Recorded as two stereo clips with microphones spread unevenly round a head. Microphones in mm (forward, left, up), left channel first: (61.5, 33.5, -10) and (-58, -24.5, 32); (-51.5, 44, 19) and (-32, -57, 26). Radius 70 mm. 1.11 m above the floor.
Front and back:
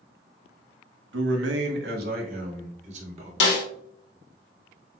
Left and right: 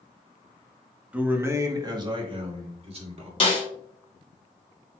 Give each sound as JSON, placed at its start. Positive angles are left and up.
{"t": 1.1, "sound": "a man speaking", "azimuth_deg": -160, "distance_m": 1.1}
{"t": 3.4, "sound": "a snare drum", "azimuth_deg": 45, "distance_m": 1.5}